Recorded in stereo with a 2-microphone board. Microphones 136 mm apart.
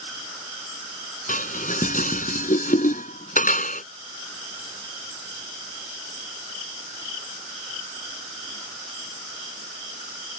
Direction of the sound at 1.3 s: 80° left.